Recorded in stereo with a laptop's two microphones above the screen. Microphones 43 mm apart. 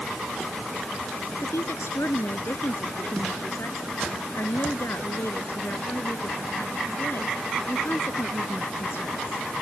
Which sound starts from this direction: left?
A woman speaking, at 1.4 s.